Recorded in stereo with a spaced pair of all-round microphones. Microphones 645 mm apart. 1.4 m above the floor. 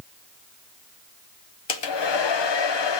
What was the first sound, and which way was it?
A hair dryer, 45° left (ahead or behind).